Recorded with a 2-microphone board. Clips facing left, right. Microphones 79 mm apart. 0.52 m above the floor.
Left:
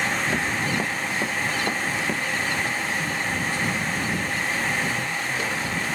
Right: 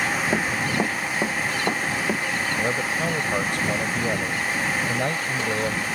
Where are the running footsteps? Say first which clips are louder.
Right 2 dB; 25° right (ahead or behind); by 2.2 s 15° right (ahead or behind).